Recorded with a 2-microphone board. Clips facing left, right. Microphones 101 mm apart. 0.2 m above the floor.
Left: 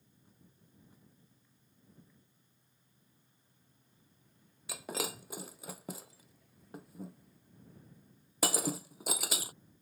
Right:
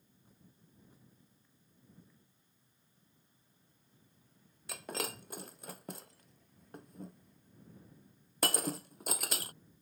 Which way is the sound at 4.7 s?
5° left (ahead or behind).